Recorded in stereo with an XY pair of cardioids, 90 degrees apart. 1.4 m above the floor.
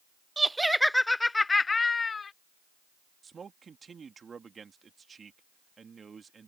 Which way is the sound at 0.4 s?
25° right.